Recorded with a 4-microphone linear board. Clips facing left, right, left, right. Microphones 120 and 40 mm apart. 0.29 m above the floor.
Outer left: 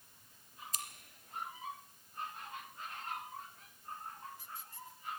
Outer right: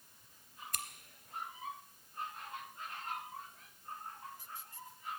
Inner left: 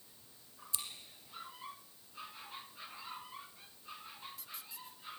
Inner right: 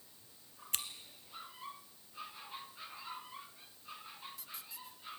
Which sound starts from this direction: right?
Scissors, at 0.7 s.